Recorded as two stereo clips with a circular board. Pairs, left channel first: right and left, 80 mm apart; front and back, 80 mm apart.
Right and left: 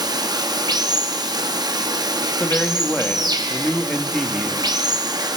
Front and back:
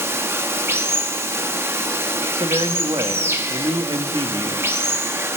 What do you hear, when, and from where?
0.0 s running water: 120° left, 0.7 m
2.4 s a man speaking: 165° right, 1.1 m